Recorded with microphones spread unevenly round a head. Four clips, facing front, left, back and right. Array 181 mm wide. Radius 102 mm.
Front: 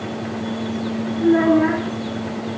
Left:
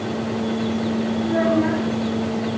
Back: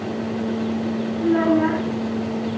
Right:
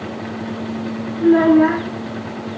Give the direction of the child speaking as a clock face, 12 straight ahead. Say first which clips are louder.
Right 10 dB, front 3 dB; 2 o'clock.